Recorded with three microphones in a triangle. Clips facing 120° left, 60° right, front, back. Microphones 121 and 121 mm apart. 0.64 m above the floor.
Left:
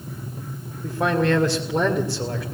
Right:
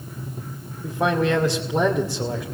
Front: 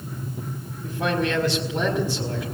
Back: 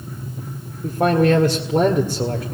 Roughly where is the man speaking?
Behind right.